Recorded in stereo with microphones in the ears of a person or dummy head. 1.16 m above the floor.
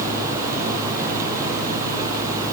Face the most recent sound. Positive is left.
No sound to turn to.